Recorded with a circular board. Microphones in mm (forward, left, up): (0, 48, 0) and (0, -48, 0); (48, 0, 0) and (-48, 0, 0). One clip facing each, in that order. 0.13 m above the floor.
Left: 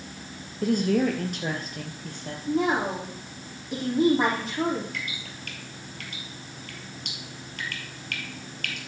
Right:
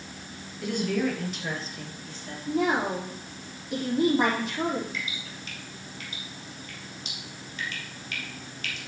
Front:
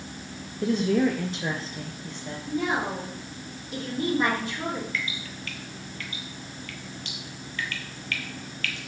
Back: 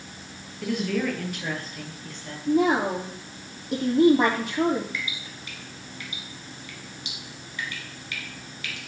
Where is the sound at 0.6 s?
50° left, 2 m; by 2.4 s 70° left, 3 m.